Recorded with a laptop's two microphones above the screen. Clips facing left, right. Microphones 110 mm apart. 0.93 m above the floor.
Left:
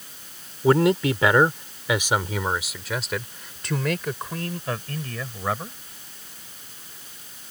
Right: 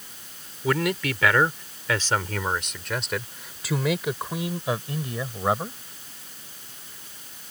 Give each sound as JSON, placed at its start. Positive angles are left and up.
{"t": 0.6, "sound": "a man speaking", "side_deg": 30}